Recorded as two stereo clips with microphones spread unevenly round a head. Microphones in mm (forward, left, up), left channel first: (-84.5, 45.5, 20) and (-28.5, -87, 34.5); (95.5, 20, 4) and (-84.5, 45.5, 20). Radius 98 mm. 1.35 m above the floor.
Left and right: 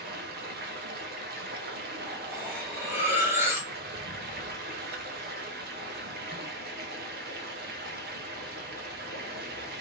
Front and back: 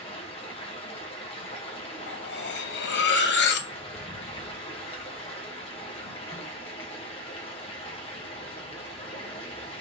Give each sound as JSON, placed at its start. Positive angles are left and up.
{"t": 0.0, "sound": "running water", "azimuth_deg": -70, "distance_m": 0.9}
{"t": 2.1, "sound": "cutlery clinking", "azimuth_deg": 5, "distance_m": 0.6}